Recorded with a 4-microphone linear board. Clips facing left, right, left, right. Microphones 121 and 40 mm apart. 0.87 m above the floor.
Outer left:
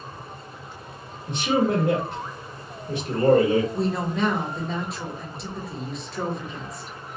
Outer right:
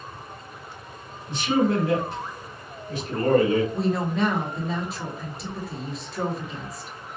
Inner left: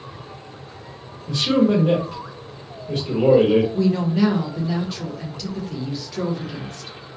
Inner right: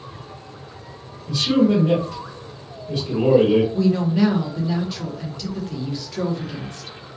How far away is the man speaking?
About 1.5 m.